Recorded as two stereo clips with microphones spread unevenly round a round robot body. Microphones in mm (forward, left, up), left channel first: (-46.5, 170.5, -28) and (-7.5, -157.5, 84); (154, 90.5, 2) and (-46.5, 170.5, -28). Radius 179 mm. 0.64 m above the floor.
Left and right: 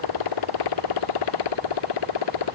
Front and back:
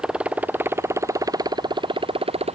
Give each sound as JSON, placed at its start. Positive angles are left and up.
{"t": 0.0, "sound": "a motorcycle", "azimuth_deg": 75}